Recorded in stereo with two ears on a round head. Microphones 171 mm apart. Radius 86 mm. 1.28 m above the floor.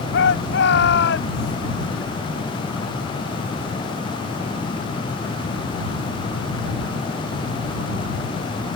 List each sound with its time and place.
0.1 s a shout: 65° left (ahead or behind)